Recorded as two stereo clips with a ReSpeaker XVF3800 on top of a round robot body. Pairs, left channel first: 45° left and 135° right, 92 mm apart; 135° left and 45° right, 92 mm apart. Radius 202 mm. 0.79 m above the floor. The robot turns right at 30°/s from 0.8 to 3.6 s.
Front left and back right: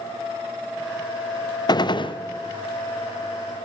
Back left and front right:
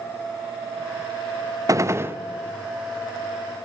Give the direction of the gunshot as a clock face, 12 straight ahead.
12 o'clock.